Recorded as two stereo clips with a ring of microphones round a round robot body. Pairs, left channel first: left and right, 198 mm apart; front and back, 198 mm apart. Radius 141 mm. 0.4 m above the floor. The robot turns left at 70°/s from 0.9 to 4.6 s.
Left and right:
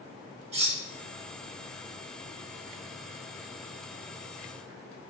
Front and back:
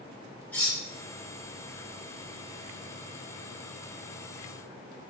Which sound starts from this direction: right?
Cutlery clinking, at 0.5 s.